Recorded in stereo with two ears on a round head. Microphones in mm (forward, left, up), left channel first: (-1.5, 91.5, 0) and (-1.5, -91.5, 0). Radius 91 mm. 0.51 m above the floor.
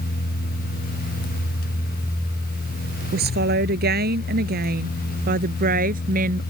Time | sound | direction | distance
3.1 | a woman speaking | 55° right (ahead or behind) | ?